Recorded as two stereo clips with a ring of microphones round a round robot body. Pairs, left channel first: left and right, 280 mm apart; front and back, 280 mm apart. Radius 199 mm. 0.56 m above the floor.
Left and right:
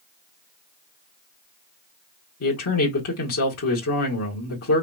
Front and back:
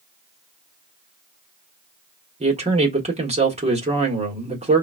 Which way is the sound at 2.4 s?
115° left.